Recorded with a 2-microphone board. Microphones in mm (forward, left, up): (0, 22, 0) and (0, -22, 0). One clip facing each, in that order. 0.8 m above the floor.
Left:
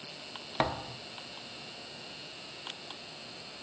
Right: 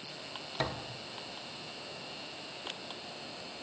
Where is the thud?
40° left (ahead or behind), 1.0 m.